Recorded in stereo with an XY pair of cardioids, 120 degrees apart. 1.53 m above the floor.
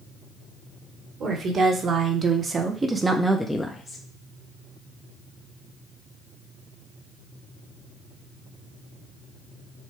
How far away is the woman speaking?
About 1.4 m.